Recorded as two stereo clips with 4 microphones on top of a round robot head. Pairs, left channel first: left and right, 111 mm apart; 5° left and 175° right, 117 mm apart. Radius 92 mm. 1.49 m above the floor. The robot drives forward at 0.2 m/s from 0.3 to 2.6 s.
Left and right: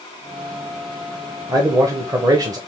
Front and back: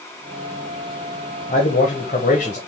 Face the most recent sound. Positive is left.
turn(degrees=-35)